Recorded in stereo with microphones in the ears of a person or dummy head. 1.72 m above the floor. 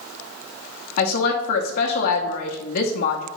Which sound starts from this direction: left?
A woman speaking, at 1.0 s.